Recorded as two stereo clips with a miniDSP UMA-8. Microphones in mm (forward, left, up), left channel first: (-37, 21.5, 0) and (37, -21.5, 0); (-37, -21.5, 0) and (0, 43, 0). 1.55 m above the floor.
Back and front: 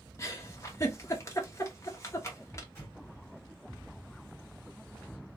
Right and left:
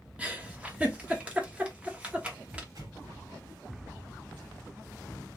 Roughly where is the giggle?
Behind left.